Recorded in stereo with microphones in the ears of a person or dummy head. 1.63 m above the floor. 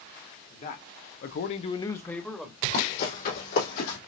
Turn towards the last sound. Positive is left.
turn(degrees=55)  # may be behind; listen again after turning